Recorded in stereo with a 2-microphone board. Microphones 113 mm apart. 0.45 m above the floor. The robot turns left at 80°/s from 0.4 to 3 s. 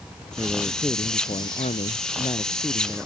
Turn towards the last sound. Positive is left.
turn(degrees=-10)